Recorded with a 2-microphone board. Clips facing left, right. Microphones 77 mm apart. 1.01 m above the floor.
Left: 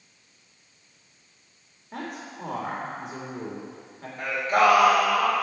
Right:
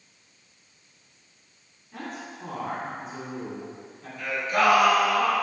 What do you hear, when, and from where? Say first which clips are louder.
1.9 s a man speaking: left 1 dB; 75° left (ahead or behind), 3 m
4.2 s singing: left 3 dB; 45° left (ahead or behind), 3 m